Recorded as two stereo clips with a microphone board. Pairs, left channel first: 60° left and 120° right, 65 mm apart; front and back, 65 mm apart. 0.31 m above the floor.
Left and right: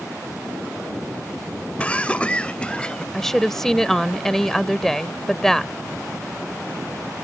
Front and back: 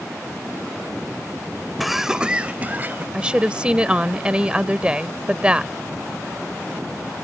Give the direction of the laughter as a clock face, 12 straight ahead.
9 o'clock.